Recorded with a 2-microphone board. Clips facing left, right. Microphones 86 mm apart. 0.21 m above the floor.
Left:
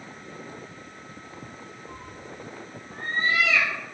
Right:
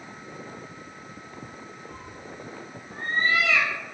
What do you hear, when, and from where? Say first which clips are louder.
1.9 s a cat meowing: even; 25° left (ahead or behind), 0.6 m; by 4.0 s 60° right (ahead or behind), 1.1 m